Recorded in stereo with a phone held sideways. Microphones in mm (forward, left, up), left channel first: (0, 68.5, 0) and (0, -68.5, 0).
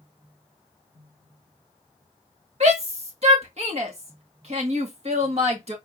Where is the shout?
50° right (ahead or behind), 1.4 m.